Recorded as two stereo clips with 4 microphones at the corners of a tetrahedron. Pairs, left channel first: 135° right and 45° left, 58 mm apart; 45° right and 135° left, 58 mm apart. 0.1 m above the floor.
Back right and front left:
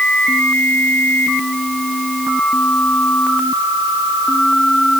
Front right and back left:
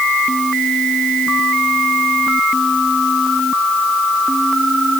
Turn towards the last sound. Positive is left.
No sound to turn to.